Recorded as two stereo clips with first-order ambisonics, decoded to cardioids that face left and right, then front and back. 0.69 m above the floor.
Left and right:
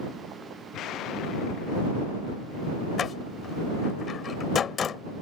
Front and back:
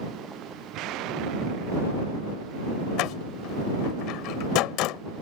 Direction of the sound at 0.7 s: 140° left.